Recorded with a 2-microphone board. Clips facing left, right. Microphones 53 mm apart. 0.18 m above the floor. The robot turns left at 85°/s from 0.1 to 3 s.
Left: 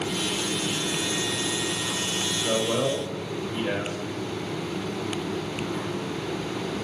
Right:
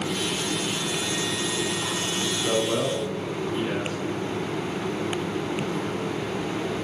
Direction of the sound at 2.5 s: 135° right.